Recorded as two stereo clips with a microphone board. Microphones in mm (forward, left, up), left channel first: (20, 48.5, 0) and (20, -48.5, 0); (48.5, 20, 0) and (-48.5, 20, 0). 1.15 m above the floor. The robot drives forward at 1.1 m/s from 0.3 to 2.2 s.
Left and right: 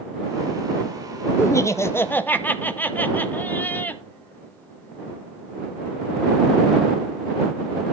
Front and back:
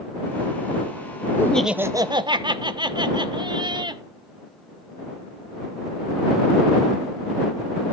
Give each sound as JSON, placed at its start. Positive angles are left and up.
{"t": 1.4, "sound": "laughter", "azimuth_deg": 45, "distance_m": 0.6}